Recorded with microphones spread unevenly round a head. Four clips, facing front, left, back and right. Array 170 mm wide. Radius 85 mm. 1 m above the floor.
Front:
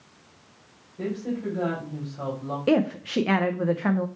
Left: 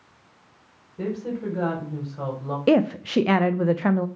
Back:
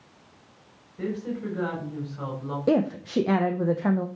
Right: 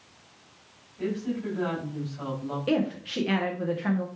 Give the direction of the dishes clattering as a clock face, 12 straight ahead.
No dishes clattering in this recording.